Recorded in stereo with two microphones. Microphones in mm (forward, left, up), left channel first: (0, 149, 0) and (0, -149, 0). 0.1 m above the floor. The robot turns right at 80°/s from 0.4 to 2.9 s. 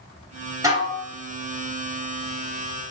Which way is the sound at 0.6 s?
160° right.